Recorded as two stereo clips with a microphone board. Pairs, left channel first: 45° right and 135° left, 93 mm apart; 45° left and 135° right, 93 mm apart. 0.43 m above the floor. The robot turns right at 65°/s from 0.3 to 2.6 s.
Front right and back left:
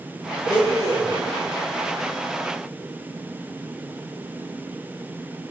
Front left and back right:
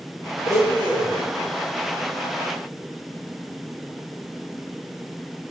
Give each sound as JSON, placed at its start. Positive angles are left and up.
{"t": 0.4, "sound": "a blender", "azimuth_deg": 160, "distance_m": 5.5}